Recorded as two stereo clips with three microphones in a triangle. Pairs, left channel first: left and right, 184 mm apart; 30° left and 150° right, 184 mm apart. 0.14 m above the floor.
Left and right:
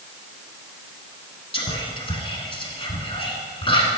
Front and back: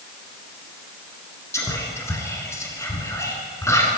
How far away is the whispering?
About 1.2 m.